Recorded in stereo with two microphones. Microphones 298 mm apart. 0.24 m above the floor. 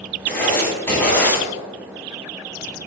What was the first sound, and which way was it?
Writing, 5° left (ahead or behind).